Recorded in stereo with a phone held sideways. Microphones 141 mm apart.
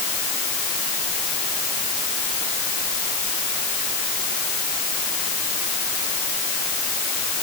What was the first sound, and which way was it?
Only background noise.